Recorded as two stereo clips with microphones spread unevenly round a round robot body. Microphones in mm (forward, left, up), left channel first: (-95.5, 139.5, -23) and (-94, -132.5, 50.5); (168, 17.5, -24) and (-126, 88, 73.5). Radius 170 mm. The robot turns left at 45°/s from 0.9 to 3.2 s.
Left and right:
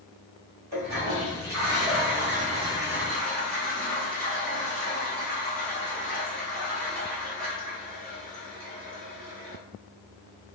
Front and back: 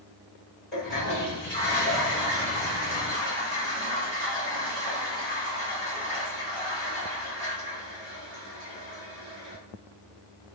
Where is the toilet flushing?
90° right, 1.6 m; by 9.6 s 165° left, 1.6 m.